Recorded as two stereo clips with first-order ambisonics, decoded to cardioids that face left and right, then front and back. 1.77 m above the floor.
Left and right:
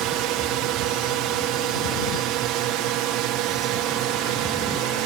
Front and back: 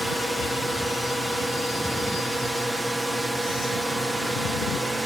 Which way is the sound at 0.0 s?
95° right.